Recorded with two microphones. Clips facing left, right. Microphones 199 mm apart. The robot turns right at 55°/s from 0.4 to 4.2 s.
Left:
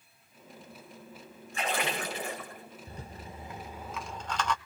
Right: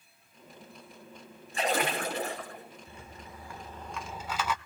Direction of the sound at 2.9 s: 40° left (ahead or behind).